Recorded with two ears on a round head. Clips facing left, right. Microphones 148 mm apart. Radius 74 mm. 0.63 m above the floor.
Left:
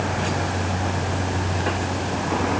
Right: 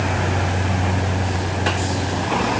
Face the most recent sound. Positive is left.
No sound to turn to.